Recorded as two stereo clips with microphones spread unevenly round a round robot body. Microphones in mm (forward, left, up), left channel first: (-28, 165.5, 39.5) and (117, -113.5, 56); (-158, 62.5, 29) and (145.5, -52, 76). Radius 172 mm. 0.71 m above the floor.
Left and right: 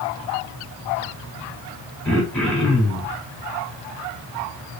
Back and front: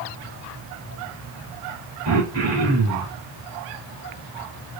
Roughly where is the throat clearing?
Ahead left.